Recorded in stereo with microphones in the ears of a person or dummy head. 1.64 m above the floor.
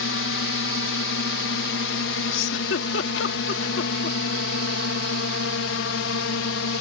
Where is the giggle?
75° left (ahead or behind).